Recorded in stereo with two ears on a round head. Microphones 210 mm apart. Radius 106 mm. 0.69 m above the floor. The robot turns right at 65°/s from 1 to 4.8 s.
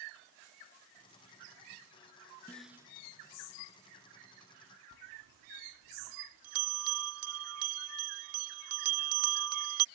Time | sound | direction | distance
2.5 | a snare drum | 10° left (ahead or behind) | ?
4.9 | a bell | 70° right (ahead or behind) | ?